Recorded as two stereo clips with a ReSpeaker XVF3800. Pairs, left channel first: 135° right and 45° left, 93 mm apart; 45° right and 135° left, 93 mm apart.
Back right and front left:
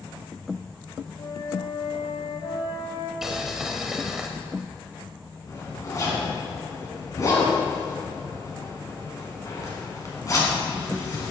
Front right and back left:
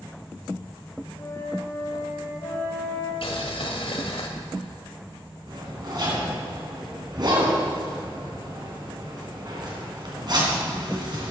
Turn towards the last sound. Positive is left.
turn(degrees=175)